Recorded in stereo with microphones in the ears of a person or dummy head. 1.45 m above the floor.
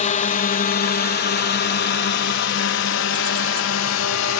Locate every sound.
0.0 s a drone: 40° left (ahead or behind); by 4.4 s 75° left (ahead or behind)